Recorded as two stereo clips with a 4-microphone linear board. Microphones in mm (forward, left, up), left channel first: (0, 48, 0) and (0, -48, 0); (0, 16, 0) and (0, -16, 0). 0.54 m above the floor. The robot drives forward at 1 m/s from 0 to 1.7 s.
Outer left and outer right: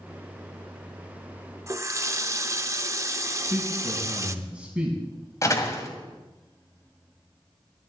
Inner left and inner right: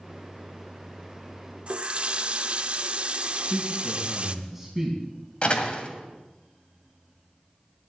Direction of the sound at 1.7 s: 30° right (ahead or behind).